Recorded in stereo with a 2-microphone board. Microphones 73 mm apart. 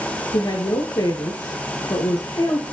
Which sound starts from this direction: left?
A woman speaking, at 0.3 s.